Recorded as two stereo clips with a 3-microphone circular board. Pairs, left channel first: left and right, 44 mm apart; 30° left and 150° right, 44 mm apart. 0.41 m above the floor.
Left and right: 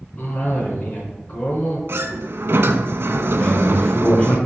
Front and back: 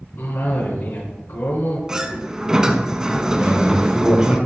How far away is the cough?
About 3.5 m.